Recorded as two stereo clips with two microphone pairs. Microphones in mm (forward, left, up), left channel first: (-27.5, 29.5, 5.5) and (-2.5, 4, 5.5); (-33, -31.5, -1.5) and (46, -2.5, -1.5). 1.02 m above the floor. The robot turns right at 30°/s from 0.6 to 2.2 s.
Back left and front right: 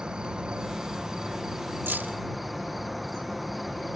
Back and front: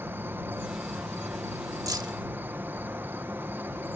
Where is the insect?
Straight ahead; by 4.0 s 45° left.